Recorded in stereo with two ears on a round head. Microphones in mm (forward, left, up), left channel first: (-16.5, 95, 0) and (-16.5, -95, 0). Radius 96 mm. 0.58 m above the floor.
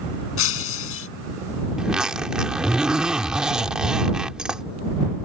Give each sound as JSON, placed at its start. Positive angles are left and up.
{"t": 0.4, "sound": "breaking glass", "side_deg": 65}
{"t": 1.8, "sound": "a zipper", "side_deg": -5}